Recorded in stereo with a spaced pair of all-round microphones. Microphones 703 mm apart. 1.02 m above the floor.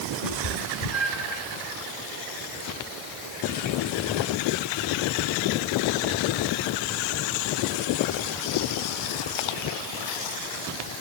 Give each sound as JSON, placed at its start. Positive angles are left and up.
{"t": 0.2, "sound": "a cat meowing", "side_deg": 75, "distance_m": 3.5}